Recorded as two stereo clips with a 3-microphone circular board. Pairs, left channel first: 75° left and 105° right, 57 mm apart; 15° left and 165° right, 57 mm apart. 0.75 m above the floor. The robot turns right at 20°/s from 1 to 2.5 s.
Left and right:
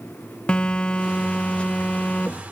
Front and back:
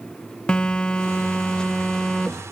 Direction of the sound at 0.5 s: 50° left.